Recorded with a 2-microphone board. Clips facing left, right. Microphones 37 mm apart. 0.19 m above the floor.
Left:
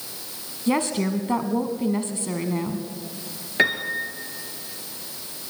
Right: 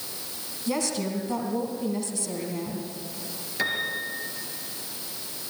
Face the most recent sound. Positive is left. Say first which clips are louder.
# left 6 dB
turn(degrees=40)  # may be behind; listen again after turning